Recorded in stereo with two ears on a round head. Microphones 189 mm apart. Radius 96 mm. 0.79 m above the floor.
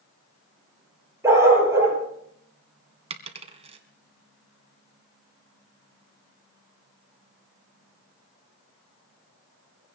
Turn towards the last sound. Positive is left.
turn(degrees=-30)  # may be behind; listen again after turning